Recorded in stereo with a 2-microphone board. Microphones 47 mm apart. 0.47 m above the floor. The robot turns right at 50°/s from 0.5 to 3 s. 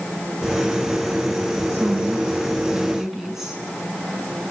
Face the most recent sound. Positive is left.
turn(degrees=-10)